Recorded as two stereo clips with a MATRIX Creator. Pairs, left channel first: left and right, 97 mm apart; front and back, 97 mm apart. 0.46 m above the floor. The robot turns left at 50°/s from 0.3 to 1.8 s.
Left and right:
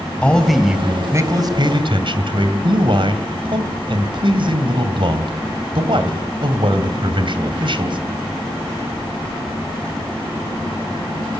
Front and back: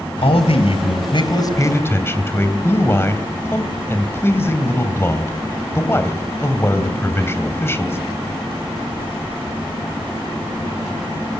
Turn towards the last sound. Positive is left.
turn(degrees=-65)